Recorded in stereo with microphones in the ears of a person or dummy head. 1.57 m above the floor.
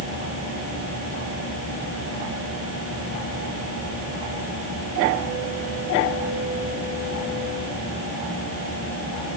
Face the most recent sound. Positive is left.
No sound to turn to.